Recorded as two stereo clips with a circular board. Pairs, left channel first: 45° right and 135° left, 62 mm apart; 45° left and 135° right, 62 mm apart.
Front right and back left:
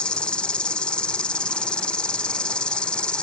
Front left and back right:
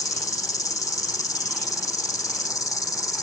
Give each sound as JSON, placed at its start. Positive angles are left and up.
{"t": 0.0, "sound": "an insect", "azimuth_deg": 25, "distance_m": 0.7}